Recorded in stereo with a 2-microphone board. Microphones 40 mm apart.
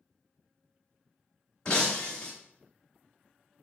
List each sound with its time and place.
1.6 s breaking glass: 20° left (ahead or behind), 1.1 m